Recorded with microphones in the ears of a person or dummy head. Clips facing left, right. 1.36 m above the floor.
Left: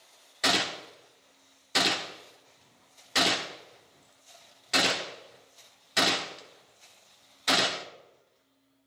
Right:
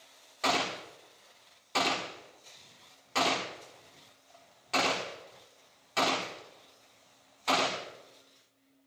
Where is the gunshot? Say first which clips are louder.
Left 1 dB; 20° left (ahead or behind), 1.3 m.